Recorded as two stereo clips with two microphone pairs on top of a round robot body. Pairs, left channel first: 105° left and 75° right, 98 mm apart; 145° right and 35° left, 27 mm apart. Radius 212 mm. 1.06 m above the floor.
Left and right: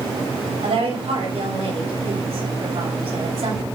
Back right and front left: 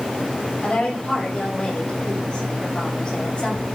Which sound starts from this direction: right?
A woman speaking, at 0.6 s.